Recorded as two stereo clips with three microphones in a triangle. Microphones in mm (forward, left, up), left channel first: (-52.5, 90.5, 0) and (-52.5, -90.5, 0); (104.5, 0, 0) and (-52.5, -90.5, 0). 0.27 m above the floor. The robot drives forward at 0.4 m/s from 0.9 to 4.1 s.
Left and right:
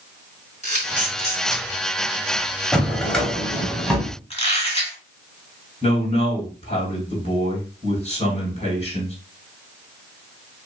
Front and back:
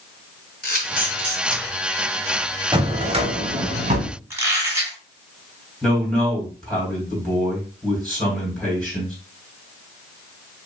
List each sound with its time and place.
0.6 s a camera shutter: 45° left, 2 m; by 1.6 s 55° left, 2 m
2.7 s a drawer: 170° left, 0.7 m; by 4.1 s 175° left, 1.1 m
4.3 s a squeak: 140° left, 1.1 m
5.8 s a man speaking: 115° left, 2 m